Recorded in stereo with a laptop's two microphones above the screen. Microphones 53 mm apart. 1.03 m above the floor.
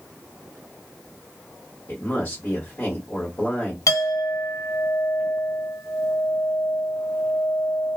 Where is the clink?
70° left (ahead or behind), 0.8 m.